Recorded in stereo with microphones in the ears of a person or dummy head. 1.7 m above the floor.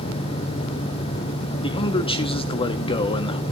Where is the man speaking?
35° left (ahead or behind), 1.1 m.